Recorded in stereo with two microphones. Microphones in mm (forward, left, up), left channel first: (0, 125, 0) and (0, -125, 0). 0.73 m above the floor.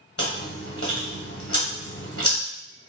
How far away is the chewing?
About 1.3 m.